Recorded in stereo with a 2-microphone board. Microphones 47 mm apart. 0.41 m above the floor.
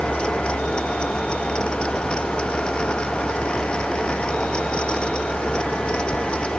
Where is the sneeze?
I don't hear a sneeze.